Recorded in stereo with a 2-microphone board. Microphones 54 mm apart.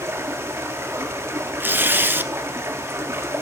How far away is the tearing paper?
About 0.9 m.